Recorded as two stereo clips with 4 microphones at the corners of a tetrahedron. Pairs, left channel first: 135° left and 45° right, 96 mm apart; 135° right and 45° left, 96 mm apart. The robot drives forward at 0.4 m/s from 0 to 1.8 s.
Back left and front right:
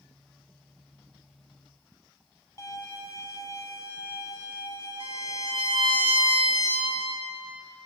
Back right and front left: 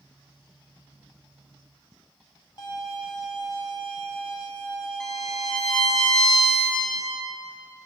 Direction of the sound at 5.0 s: 50° right.